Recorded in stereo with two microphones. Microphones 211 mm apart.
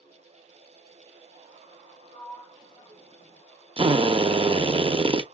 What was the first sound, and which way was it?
A sliding door, 25° left (ahead or behind).